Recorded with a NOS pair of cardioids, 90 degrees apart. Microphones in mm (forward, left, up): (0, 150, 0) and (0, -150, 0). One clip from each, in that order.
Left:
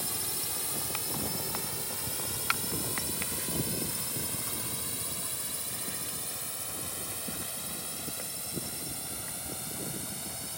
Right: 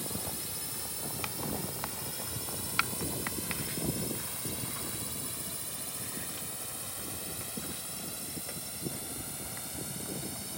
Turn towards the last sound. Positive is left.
turn(degrees=20)